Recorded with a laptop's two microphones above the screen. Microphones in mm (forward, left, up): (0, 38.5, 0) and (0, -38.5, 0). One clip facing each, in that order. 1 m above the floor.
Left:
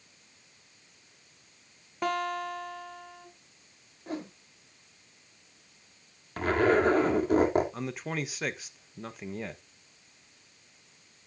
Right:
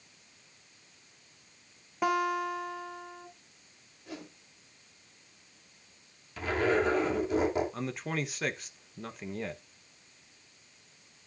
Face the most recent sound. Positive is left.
turn(degrees=5)  # may be behind; listen again after turning